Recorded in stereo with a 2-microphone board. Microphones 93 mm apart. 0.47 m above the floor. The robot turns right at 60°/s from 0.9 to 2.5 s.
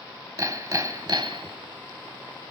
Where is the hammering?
140° right, 0.9 m; by 1.6 s 100° right, 0.9 m.